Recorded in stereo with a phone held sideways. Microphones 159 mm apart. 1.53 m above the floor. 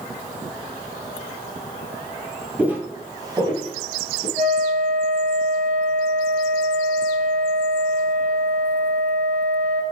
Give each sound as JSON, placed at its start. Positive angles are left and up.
{"t": 2.6, "sound": "footsteps", "side_deg": -10, "distance_m": 1.6}
{"t": 4.4, "sound": "a flute", "side_deg": -75, "distance_m": 3.5}